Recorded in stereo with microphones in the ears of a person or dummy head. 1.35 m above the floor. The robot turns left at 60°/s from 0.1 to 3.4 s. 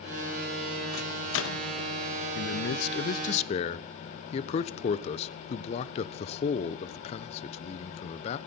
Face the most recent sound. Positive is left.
turn(degrees=40)